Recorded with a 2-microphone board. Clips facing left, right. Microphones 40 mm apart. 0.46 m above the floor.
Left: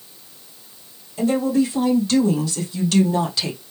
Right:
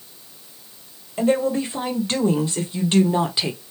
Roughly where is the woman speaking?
Right.